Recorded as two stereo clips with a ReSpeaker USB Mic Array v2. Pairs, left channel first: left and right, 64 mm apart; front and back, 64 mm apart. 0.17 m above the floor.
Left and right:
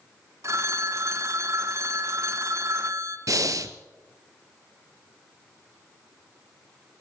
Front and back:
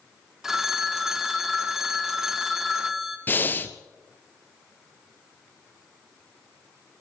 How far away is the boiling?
No boiling in this recording.